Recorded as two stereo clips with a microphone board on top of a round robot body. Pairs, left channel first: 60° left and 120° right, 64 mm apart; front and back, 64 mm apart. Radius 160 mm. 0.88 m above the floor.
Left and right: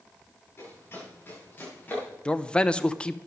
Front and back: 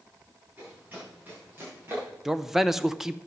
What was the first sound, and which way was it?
Running footsteps, 115° left.